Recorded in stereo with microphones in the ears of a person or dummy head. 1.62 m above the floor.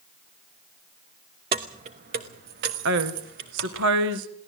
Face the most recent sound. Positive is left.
turn(degrees=-65)  # may be behind; listen again after turning